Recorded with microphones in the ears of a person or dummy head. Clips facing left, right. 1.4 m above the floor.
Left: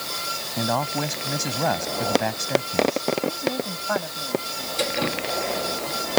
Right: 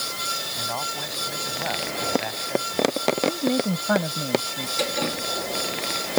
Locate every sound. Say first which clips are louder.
0.6 s a man speaking: left 10 dB; 60° left (ahead or behind)
3.3 s a woman speaking: right 4 dB; 45° right (ahead or behind)
4.8 s dripping: left 1 dB; 5° left (ahead or behind)